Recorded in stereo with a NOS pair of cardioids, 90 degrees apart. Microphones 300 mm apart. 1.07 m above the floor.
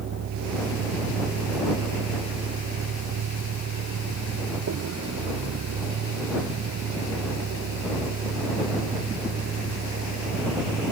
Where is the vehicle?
65° right; by 10.9 s 50° right.